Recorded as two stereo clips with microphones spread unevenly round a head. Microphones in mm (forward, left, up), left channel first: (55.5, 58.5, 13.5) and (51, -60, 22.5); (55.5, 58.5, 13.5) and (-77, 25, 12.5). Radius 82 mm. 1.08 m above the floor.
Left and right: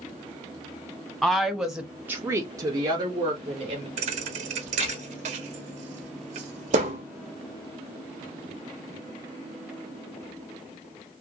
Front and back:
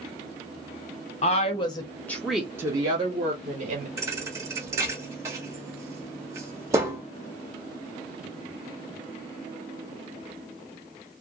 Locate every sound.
1.2 s a woman speaking: 10° left, 0.8 m; by 3.9 s 145° right, 1.1 m
4.0 s a thud: 95° right, 0.6 m